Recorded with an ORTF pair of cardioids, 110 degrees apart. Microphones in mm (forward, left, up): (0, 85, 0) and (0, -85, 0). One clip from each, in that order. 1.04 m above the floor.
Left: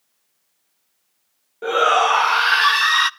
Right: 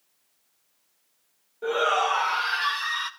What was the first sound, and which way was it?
A shout, 40° left.